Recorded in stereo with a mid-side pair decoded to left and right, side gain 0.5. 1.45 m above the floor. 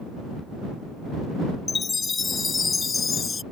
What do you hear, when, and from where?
1.7 s a chime: 30° left